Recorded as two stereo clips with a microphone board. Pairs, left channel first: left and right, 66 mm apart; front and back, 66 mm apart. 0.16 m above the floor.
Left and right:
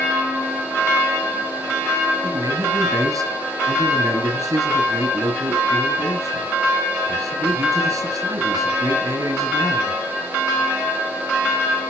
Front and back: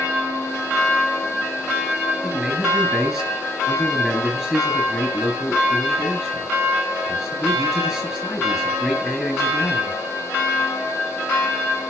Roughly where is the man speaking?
Right.